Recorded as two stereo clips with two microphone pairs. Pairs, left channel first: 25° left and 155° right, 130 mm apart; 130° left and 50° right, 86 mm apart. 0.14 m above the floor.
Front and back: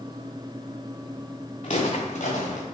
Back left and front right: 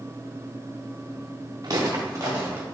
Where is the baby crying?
No baby crying in this recording.